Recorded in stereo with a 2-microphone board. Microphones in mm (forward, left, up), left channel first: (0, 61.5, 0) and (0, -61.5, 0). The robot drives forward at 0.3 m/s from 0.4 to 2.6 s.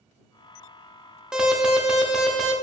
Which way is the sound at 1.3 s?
5° right (ahead or behind).